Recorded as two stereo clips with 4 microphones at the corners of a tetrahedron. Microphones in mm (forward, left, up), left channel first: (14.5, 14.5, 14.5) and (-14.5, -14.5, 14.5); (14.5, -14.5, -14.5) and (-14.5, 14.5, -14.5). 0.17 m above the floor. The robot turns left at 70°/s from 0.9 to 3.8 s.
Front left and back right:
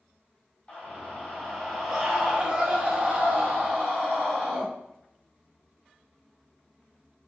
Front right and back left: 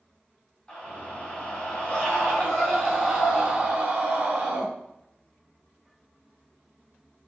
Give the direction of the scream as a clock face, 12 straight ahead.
12 o'clock.